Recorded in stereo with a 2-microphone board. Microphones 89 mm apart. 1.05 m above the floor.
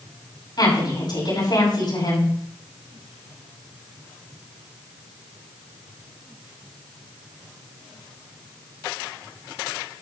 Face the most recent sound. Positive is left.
turn(degrees=55)  # may be behind; listen again after turning